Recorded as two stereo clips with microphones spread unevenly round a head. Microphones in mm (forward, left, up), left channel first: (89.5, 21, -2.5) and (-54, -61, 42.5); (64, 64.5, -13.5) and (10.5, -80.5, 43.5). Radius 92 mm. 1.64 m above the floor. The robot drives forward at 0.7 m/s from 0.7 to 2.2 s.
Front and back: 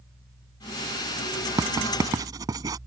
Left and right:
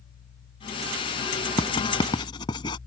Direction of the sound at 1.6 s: 140° left.